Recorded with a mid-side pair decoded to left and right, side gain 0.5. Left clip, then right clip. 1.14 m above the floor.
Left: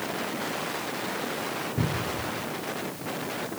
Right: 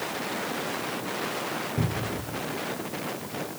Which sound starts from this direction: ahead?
A cupboard door, at 1.8 s.